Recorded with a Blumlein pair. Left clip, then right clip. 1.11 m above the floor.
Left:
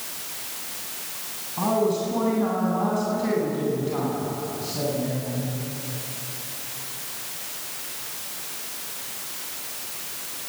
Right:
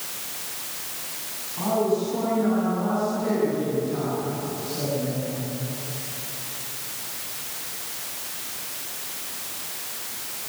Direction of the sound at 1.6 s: 20° left.